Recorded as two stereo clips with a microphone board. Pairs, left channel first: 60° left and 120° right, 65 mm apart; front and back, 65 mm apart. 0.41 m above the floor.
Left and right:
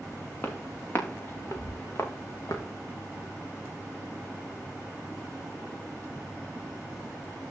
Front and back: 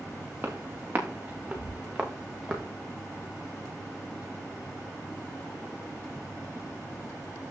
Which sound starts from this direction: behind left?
Footsteps, at 0.4 s.